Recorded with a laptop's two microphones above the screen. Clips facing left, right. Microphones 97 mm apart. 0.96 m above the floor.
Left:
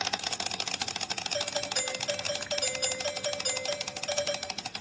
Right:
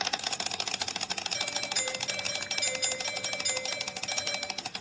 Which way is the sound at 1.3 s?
45° left (ahead or behind).